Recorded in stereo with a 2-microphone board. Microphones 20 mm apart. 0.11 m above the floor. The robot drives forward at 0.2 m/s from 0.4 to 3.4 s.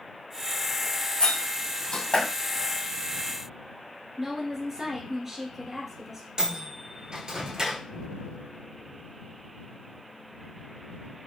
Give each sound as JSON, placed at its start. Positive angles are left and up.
{"t": 1.2, "sound": "a door slam", "side_deg": 55, "distance_m": 2.5}
{"t": 4.2, "sound": "a woman speaking", "side_deg": -25, "distance_m": 1.3}
{"t": 6.4, "sound": "a microwave", "side_deg": -35, "distance_m": 1.2}